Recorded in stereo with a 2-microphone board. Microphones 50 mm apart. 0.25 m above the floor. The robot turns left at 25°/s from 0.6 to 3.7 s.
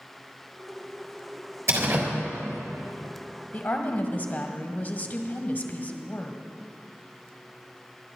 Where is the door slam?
65° right (ahead or behind), 3.5 m; by 2.1 s 55° right (ahead or behind), 3.5 m.